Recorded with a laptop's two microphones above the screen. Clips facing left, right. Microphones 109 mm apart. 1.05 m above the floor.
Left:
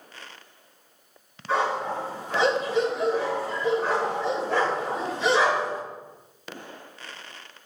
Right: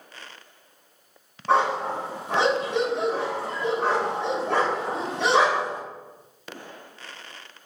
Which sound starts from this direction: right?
A dog barking, at 1.5 s.